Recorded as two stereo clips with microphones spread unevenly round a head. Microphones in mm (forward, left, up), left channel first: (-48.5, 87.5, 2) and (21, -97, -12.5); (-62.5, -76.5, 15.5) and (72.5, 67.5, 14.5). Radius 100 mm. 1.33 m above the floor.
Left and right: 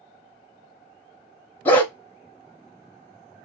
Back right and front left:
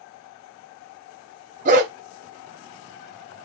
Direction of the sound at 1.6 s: 45° left.